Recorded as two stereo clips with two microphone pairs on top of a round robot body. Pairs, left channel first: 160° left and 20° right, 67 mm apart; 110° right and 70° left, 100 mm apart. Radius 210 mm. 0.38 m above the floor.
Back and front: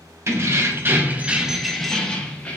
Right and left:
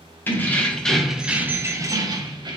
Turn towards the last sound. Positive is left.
turn(degrees=95)